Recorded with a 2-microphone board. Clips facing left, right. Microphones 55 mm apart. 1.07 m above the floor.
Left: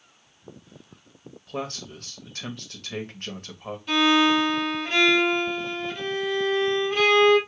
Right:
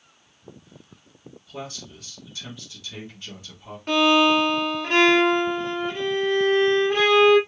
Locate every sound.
1.5 s a man speaking: 55° left (ahead or behind), 1.1 m
3.9 s a violin: 55° right (ahead or behind), 1.6 m